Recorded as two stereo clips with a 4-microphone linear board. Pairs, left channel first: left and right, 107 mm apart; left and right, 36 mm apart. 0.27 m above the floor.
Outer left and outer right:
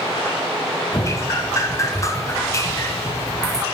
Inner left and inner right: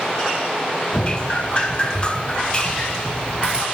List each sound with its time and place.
0.9 s dripping: 30° left (ahead or behind), 1.1 m